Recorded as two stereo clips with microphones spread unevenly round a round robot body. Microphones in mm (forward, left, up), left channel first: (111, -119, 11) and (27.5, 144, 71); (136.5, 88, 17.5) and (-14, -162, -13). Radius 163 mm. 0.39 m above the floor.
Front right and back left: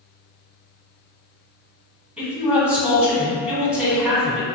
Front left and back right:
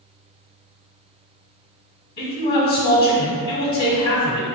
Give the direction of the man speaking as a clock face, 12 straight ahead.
12 o'clock.